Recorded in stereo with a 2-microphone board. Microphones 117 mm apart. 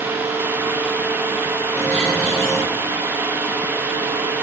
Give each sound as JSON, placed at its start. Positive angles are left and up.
{"t": 1.7, "sound": "a bird", "side_deg": 10, "distance_m": 5.0}